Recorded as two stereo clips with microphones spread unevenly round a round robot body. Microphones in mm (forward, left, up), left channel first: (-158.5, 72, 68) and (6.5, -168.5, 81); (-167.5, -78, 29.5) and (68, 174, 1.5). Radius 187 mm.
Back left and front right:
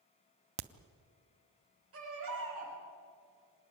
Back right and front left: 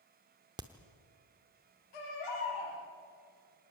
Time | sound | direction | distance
0.6 | a crack | 35° right | 0.6 m
1.9 | a baby crying | 100° right | 9 m